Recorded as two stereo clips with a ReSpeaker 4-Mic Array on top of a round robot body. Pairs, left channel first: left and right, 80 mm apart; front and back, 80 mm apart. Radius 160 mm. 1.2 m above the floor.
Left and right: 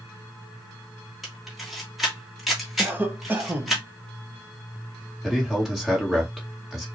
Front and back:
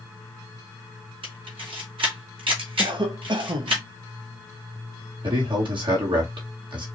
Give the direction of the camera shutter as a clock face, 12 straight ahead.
6 o'clock.